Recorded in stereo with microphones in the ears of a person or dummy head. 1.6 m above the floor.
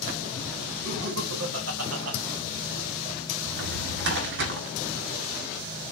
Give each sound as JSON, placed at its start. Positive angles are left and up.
{"t": 0.8, "sound": "laughter", "side_deg": -70, "distance_m": 3.5}
{"t": 3.5, "sound": "a drawer", "side_deg": -65, "distance_m": 2.0}